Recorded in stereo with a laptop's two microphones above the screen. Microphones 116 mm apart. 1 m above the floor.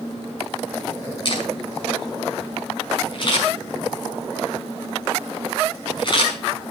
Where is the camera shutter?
40° left (ahead or behind), 6.5 m.